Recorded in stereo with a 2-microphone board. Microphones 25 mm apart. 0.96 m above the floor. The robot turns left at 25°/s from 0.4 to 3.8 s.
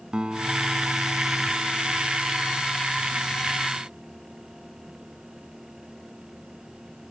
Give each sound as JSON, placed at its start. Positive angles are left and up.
{"t": 0.1, "sound": "a guitar", "azimuth_deg": -140}